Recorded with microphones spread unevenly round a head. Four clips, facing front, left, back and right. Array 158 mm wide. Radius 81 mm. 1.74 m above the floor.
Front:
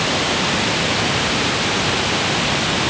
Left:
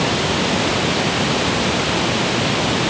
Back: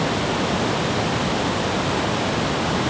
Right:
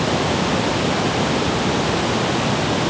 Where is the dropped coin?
I don't hear a dropped coin.